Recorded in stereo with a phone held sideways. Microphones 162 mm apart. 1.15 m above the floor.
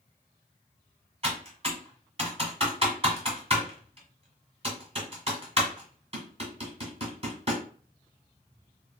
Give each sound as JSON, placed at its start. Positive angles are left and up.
{"t": 1.2, "sound": "typing on a keyboard", "side_deg": -40, "distance_m": 1.3}